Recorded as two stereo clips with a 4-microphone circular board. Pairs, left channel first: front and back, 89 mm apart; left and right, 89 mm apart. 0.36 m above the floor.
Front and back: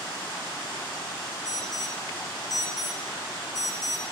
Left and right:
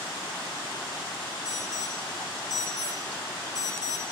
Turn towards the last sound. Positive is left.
turn(degrees=45)